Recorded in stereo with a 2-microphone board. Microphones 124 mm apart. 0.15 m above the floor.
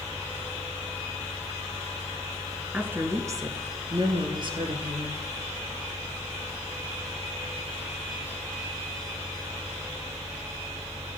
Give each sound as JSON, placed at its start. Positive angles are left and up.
{"t": 2.7, "sound": "a woman speaking", "side_deg": -15, "distance_m": 1.5}